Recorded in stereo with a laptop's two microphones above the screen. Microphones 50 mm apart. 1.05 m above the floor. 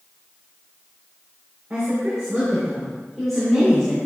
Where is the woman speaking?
25° right (ahead or behind), 4.5 m; by 4.0 s 10° left (ahead or behind), 4 m.